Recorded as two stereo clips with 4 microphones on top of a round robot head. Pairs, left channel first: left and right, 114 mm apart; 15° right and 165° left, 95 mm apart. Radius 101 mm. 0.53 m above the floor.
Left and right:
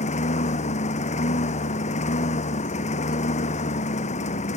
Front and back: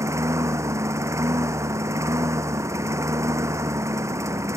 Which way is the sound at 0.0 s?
110° left.